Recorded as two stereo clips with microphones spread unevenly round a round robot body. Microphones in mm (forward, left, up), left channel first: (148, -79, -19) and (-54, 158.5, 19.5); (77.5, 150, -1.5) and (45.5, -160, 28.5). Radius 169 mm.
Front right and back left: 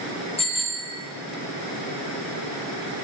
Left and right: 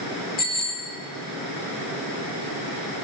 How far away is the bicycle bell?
About 3 m.